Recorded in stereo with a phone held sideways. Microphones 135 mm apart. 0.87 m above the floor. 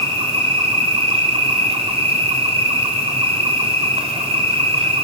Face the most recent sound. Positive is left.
turn(degrees=-50)  # may be behind; listen again after turning